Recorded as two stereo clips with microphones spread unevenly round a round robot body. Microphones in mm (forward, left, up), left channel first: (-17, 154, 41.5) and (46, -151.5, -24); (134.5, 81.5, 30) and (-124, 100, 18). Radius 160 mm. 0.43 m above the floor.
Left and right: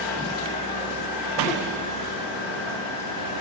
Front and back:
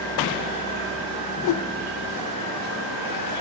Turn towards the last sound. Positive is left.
turn(degrees=15)